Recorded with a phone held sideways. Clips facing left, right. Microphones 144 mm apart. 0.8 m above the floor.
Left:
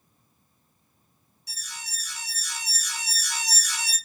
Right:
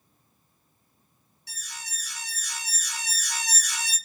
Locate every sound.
1.5 s an alarm: 65° right (ahead or behind), 3.5 m